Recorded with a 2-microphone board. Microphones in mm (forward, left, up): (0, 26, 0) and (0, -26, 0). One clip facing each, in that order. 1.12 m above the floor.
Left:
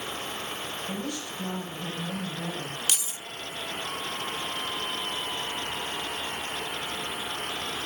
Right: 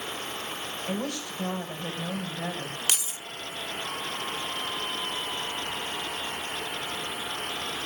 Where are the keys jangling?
25° right (ahead or behind), 1.0 m.